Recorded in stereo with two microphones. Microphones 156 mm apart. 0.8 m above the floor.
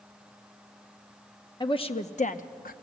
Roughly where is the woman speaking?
Left.